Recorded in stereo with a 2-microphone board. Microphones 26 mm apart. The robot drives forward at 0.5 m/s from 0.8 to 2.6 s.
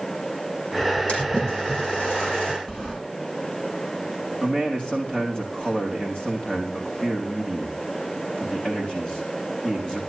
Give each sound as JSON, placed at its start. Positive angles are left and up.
{"t": 1.1, "sound": "a splash", "side_deg": 65, "distance_m": 6.5}
{"t": 2.7, "sound": "a sliding door", "side_deg": 35, "distance_m": 9.5}
{"t": 4.4, "sound": "a man speaking", "side_deg": 45, "distance_m": 5.5}